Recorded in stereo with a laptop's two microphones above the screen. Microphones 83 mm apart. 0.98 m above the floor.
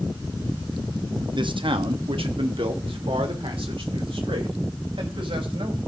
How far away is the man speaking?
About 1.1 m.